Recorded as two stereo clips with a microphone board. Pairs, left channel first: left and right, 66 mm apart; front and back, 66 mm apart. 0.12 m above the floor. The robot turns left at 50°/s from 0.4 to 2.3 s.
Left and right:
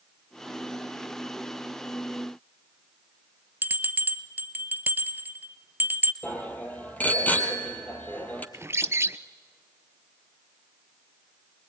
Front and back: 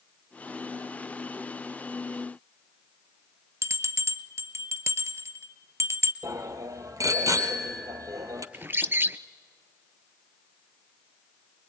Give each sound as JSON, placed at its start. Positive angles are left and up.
{"t": 3.6, "sound": "a bell", "azimuth_deg": -145, "distance_m": 1.0}
{"t": 6.2, "sound": "a bicycle bell", "azimuth_deg": 155, "distance_m": 2.5}
{"t": 8.5, "sound": "a bird", "azimuth_deg": -130, "distance_m": 0.7}